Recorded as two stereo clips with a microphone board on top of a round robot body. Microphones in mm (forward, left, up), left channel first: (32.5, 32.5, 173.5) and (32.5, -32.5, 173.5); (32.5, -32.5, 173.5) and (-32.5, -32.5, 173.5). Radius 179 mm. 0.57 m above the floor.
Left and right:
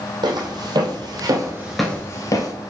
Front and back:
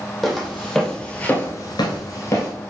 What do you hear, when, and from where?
0.2 s footsteps: 90° right, 2 m; by 2.5 s 55° left, 1.3 m